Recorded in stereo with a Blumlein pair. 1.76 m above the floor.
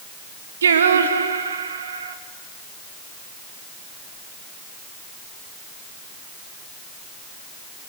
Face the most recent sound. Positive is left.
turn(degrees=-65)